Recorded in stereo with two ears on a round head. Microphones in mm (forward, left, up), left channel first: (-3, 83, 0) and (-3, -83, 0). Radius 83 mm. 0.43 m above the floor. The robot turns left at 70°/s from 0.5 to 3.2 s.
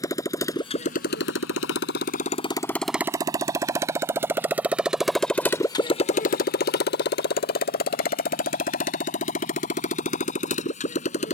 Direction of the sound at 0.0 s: 20° left (ahead or behind).